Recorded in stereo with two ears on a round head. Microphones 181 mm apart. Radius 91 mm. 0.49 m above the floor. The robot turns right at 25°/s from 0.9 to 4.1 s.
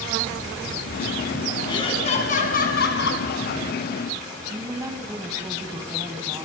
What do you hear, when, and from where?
1.7 s laughter: 20° left, 5.5 m; by 3.2 s 60° left, 5.5 m
4.5 s a woman speaking: 15° right (ahead or behind), 4.5 m